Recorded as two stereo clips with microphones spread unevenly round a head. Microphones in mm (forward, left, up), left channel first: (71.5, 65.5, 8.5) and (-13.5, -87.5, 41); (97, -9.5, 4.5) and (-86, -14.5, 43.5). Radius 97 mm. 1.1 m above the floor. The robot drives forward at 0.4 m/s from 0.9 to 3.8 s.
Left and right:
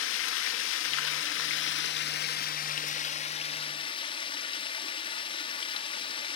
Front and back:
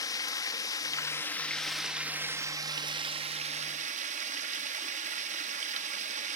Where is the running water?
75° left, 1.2 m; by 6.4 s 130° left, 1.4 m.